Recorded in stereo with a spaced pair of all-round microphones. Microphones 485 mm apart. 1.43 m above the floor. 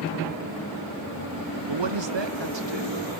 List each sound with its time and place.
1.7 s a man speaking: 60° right (ahead or behind), 0.7 m